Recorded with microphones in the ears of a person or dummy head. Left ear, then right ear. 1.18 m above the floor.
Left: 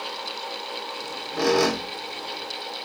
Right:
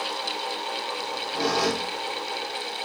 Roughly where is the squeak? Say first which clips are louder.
Right 1 dB; left.